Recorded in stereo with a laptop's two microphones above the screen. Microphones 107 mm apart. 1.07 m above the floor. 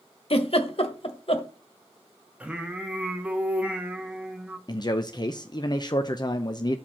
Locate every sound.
0.3 s a giggle: 55° left (ahead or behind), 1.2 m
2.4 s singing: 10° right (ahead or behind), 1.0 m
4.7 s a man speaking: 40° left (ahead or behind), 0.6 m